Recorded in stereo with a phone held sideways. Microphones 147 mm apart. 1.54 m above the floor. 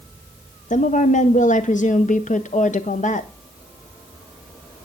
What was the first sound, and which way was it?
A woman speaking, 55° left (ahead or behind).